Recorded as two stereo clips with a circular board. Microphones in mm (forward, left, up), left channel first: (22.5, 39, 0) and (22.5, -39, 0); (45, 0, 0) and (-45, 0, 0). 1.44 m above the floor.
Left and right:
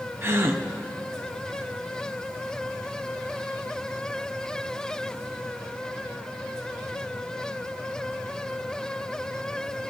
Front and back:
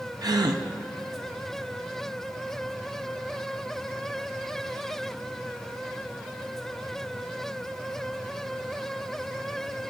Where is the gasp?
145° right, 0.8 m.